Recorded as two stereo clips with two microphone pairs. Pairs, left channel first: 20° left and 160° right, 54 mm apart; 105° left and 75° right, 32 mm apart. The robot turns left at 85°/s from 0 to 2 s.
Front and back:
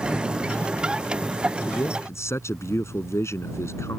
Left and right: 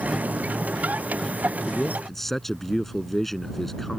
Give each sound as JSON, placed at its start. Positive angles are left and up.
{"t": 1.7, "sound": "a man speaking", "azimuth_deg": 55}